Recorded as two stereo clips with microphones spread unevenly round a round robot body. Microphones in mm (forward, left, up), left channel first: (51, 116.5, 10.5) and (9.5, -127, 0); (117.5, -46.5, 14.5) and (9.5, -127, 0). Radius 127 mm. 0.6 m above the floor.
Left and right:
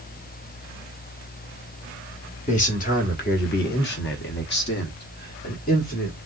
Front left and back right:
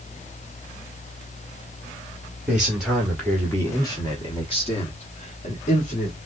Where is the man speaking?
140° left, 1.4 m; by 6.2 s 25° left, 1.5 m.